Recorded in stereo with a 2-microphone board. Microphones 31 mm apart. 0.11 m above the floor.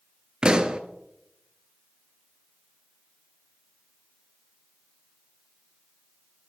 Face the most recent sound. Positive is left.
turn(degrees=-30)  # may be behind; listen again after turning